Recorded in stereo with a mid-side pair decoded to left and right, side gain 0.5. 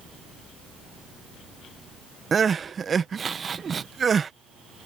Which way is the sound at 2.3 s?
35° right.